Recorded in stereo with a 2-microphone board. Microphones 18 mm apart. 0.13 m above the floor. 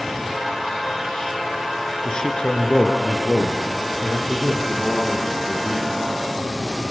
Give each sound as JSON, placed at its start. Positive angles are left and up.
{"t": 2.0, "sound": "a man speaking", "side_deg": 45, "distance_m": 2.0}